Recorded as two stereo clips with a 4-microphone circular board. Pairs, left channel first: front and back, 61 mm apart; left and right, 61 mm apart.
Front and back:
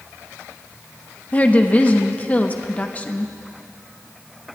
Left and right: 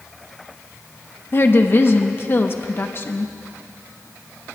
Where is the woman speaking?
55° left, 1.0 m.